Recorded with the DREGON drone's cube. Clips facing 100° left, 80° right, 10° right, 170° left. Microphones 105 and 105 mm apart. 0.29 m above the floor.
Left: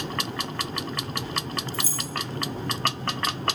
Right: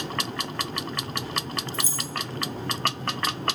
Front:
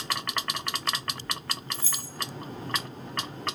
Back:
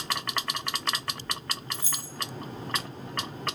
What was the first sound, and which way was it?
Keys jangling, 130° right.